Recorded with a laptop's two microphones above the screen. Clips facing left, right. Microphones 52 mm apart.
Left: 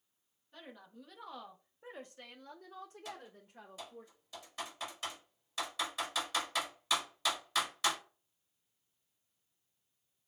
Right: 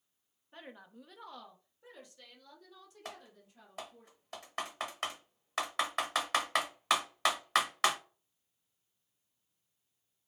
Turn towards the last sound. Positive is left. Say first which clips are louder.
# left 1 dB
turn(degrees=-60)  # may be behind; listen again after turning